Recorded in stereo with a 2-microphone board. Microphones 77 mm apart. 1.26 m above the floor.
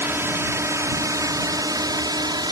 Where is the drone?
30° right (ahead or behind); by 2.5 s 65° right (ahead or behind).